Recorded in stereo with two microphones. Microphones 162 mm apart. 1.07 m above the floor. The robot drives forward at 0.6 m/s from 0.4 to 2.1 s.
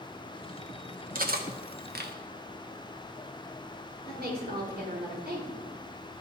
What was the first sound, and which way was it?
Cutlery clinking, 65° right (ahead or behind).